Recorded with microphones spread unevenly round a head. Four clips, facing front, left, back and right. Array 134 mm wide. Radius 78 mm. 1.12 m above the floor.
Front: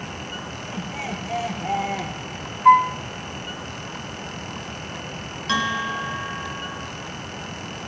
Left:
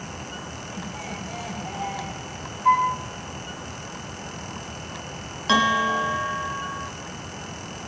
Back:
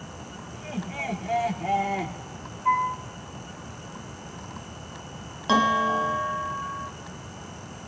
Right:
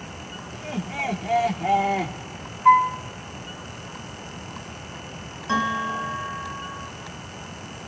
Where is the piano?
10° right, 7 m.